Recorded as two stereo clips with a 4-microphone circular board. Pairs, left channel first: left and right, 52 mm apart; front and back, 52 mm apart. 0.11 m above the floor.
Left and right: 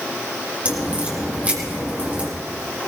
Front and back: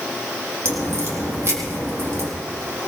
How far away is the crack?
About 4 m.